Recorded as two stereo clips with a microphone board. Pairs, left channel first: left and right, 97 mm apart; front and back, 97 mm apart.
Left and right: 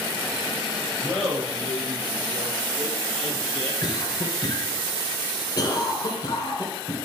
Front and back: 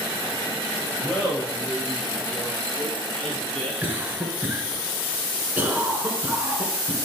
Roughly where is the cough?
Behind left.